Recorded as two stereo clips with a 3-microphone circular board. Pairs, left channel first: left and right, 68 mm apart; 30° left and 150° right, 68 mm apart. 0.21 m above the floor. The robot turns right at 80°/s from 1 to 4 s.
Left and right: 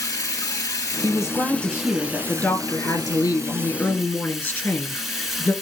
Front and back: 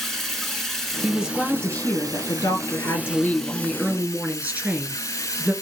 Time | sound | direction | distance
0.0 | running water | 115° left | 1.1 m
1.0 | a woman speaking | 85° right | 1.7 m